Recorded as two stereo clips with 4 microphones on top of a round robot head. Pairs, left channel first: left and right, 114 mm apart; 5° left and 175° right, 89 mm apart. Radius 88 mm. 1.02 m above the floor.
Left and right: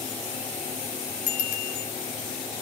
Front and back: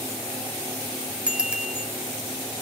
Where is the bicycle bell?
105° left, 3 m.